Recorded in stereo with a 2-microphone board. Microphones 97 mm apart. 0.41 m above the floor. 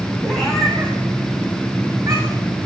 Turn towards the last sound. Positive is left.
turn(degrees=-30)  # may be behind; listen again after turning